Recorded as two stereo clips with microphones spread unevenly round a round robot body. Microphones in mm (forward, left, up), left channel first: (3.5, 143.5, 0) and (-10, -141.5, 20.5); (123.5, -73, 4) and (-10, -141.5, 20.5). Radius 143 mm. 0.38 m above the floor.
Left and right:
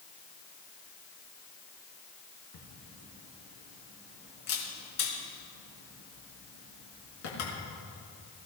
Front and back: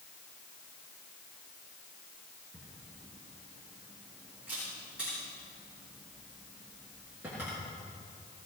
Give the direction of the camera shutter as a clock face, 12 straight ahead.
8 o'clock.